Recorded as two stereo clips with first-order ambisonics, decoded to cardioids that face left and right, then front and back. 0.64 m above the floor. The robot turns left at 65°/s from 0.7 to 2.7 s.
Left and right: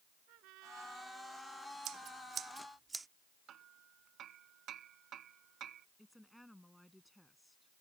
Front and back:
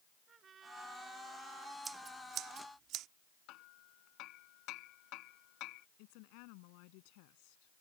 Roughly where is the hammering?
Ahead right.